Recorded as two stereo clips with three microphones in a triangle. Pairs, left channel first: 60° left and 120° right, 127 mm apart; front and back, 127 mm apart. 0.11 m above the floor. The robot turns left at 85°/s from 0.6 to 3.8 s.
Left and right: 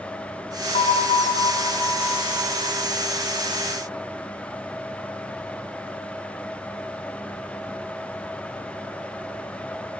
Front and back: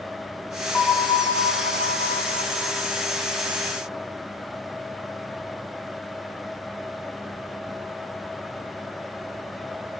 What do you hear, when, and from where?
0.7 s a bell: 80° left, 3 m; by 2.9 s 105° right, 3 m